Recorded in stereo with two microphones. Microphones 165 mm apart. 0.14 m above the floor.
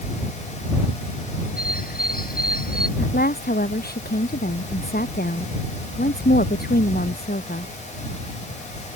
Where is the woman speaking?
70° left (ahead or behind).